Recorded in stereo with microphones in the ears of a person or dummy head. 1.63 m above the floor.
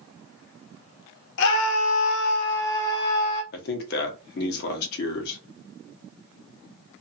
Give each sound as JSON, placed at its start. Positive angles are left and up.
{"t": 1.4, "sound": "a scream", "side_deg": 70, "distance_m": 0.8}
{"t": 3.5, "sound": "a man speaking", "side_deg": 65, "distance_m": 0.9}